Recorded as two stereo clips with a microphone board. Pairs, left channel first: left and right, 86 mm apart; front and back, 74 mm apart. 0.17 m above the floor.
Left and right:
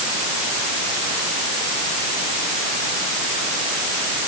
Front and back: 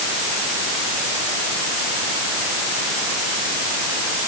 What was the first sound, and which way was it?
Only background noise.